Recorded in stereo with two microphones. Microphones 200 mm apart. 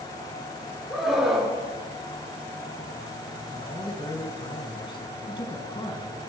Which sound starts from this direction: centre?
A scream, at 0.9 s.